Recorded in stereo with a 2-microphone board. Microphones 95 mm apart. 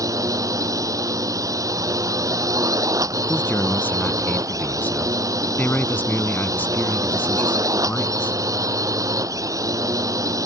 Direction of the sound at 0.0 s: 35° right (ahead or behind).